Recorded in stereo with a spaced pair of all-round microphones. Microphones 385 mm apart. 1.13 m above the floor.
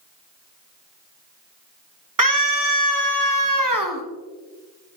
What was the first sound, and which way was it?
A scream, 55° right (ahead or behind).